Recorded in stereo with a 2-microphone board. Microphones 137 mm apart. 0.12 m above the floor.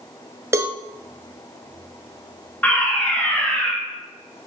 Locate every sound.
0.5 s a cowbell: 20° right (ahead or behind), 0.8 m
2.6 s a fire alarm: 10° left (ahead or behind), 2.5 m